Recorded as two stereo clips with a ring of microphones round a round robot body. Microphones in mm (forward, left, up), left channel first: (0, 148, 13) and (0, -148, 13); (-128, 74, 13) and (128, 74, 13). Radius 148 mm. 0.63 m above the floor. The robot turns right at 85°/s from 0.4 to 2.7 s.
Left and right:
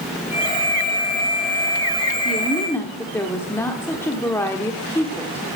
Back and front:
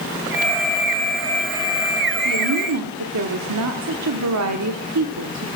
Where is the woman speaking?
30° right, 1.2 m; by 5.5 s 10° left, 1.2 m.